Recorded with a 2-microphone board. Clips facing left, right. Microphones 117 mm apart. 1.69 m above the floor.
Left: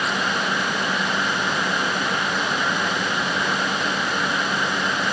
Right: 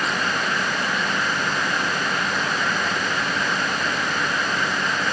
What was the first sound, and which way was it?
Only background noise.